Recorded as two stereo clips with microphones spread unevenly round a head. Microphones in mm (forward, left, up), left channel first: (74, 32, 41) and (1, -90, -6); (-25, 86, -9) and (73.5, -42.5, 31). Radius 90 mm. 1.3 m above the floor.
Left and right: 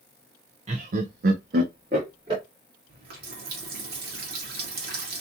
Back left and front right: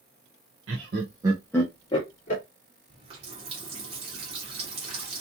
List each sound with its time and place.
0.7 s laughter: 85° right, 0.6 m; by 2.4 s 175° left, 1.0 m
2.9 s a running tap: 105° right, 1.1 m